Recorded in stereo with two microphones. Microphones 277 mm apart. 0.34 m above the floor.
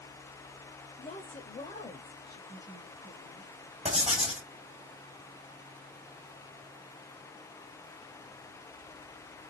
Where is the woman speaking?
30° left (ahead or behind), 0.9 m; by 3.5 s 10° left (ahead or behind), 1.9 m.